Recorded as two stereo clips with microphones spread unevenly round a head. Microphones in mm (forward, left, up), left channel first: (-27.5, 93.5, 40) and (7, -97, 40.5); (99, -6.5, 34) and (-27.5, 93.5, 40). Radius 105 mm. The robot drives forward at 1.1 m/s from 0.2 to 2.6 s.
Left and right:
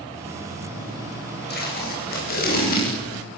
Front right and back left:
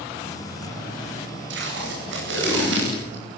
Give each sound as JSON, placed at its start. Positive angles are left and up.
{"t": 1.5, "sound": "tape being pulled", "azimuth_deg": 140, "distance_m": 9.5}